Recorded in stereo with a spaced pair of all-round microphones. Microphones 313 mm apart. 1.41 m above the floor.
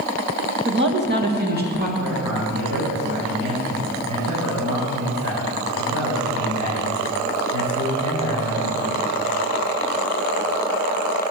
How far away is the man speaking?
About 6 m.